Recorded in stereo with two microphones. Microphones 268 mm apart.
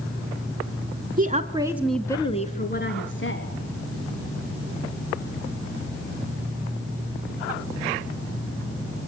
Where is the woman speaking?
35° right (ahead or behind), 1.5 m; by 3.5 s 50° left (ahead or behind), 2.5 m.